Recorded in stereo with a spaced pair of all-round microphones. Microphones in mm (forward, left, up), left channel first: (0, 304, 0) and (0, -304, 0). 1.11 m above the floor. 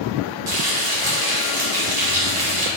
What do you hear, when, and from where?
0.5 s frying: 35° right (ahead or behind), 0.9 m